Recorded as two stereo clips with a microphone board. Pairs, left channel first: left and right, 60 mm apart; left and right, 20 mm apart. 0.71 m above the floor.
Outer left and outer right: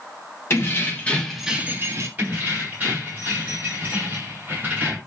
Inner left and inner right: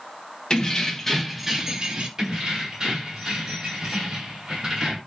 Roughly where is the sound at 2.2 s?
Right.